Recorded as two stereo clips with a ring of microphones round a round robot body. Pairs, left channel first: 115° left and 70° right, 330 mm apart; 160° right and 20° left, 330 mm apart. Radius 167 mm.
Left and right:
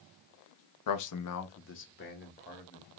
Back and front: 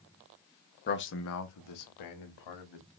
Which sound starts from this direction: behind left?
A man speaking, at 0.9 s.